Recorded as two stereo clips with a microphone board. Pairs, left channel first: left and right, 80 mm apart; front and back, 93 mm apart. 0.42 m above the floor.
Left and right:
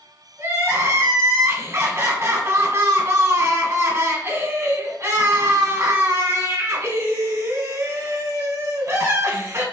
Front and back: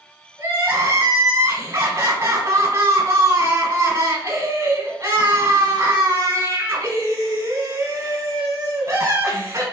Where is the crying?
135° right, 1.1 m.